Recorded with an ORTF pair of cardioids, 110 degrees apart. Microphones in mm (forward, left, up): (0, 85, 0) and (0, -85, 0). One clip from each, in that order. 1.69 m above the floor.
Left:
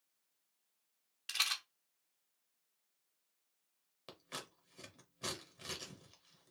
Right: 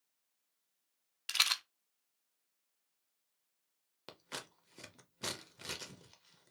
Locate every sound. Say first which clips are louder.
1.3 s a rattle: right 4 dB; 25° right, 0.6 m
4.1 s scissors: right 2 dB; 25° right, 0.9 m